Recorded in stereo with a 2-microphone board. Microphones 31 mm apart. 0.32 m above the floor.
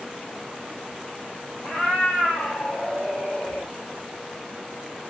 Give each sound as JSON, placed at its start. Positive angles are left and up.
{"t": 1.6, "sound": "a cat meowing", "side_deg": 50, "distance_m": 2.5}